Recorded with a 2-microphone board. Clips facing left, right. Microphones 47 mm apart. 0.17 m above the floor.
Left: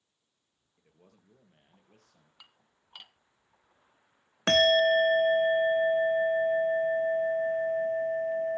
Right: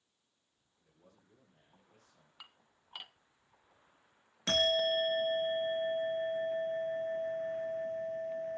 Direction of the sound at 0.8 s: 65° left (ahead or behind).